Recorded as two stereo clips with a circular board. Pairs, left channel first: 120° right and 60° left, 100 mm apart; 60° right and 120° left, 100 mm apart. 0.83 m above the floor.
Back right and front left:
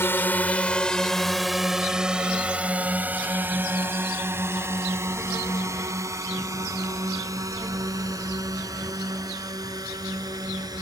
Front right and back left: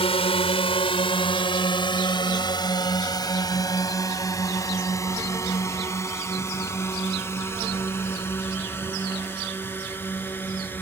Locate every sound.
0.0 s a drone: 55° right; by 10.8 s 10° left